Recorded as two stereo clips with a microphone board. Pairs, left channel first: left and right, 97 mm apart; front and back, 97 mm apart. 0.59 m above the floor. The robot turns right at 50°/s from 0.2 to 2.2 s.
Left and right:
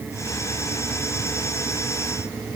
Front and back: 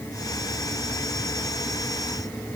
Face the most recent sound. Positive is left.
No sound to turn to.